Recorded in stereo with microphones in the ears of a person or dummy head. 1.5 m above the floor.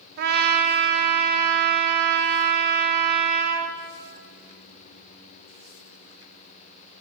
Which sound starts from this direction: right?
A trumpet, at 0.2 s.